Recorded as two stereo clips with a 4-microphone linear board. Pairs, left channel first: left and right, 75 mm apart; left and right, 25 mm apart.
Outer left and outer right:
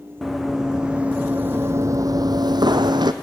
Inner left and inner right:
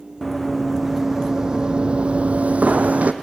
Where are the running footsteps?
Centre (ahead or behind), 1.7 m; by 3.1 s 70° right (ahead or behind), 1.1 m.